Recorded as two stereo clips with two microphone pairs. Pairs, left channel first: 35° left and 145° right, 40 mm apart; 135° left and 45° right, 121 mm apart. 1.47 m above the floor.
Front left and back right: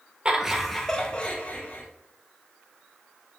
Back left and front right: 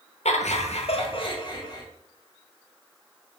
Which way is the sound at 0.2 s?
150° left.